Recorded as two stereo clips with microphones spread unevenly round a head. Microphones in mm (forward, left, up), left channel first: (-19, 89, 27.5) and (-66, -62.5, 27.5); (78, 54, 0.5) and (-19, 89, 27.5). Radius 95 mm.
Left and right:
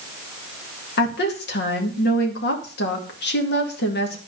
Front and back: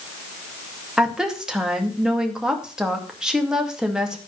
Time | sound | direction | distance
1.0 | a woman speaking | 75° left | 2.5 m